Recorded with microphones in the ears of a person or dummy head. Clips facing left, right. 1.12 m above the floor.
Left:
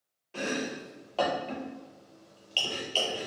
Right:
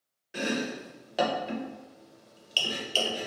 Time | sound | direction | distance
0.3 | chopping | 10° right (ahead or behind) | 0.6 m